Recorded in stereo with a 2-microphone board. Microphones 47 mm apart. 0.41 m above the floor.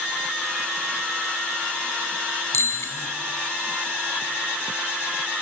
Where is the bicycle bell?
75° left (ahead or behind), 2.5 m.